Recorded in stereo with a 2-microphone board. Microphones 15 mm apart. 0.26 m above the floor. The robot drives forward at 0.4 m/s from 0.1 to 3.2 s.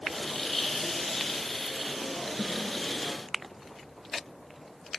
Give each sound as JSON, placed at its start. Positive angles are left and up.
{"t": 2.4, "sound": "a snare drum", "side_deg": 65, "distance_m": 3.5}